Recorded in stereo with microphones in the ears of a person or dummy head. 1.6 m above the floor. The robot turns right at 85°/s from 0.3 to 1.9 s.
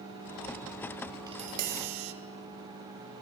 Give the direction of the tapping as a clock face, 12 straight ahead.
5 o'clock.